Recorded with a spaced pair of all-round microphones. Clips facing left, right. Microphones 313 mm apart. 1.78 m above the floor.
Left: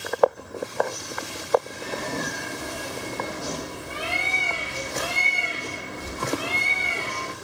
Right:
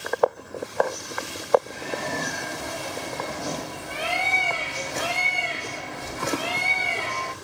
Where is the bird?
25° left (ahead or behind), 4 m.